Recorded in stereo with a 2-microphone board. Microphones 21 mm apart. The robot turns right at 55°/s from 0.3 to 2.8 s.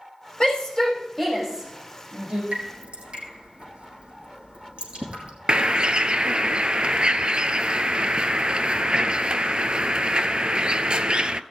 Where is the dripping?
75° right (ahead or behind), 4 m; by 5.3 s 65° right (ahead or behind), 4 m.